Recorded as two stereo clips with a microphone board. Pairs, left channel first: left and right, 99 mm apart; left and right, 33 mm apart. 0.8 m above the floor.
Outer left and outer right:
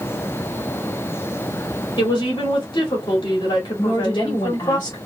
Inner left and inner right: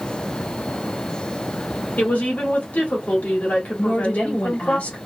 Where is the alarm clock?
I don't hear an alarm clock.